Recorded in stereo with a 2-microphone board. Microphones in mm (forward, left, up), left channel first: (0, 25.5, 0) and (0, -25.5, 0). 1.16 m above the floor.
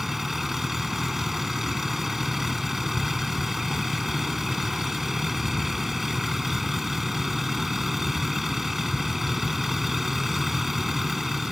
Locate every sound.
0.0 s a vehicle: 5° right (ahead or behind)